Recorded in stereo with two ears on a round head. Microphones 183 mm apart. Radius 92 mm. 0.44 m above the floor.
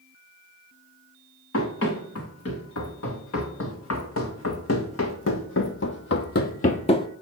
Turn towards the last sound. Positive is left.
turn(degrees=25)  # may be behind; listen again after turning